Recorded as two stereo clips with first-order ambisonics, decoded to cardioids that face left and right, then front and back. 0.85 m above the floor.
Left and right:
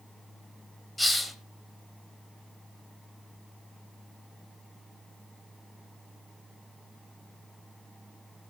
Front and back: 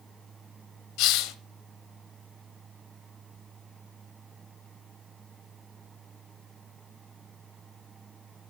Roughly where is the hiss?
Ahead.